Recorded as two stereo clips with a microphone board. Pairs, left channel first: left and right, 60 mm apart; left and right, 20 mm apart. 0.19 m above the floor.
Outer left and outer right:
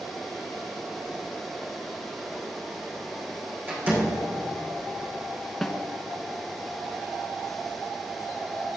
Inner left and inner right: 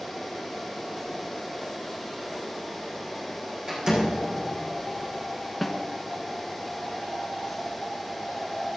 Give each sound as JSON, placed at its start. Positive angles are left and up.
{"t": 3.7, "sound": "a door slam", "side_deg": -30, "distance_m": 6.5}
{"t": 5.6, "sound": "a snare drum", "side_deg": 0, "distance_m": 1.7}